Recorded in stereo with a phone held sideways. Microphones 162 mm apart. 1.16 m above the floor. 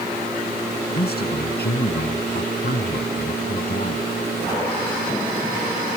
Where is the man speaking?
80° left; by 4.1 s 65° left (ahead or behind).